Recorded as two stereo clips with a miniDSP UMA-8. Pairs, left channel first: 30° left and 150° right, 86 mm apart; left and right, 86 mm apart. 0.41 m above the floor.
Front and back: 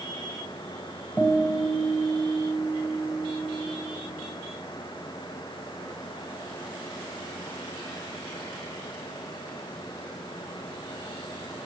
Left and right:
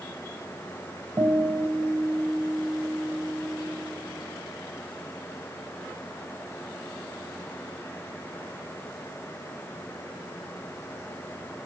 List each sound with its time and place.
1.2 s a guitar: 45° right, 2 m